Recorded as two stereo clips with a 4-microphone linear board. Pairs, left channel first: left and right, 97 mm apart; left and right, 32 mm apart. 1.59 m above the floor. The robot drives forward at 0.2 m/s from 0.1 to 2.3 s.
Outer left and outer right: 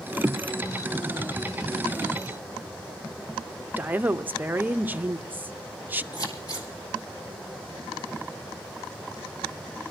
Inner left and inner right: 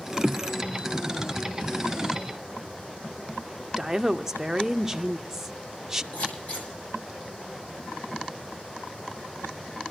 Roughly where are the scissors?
Left.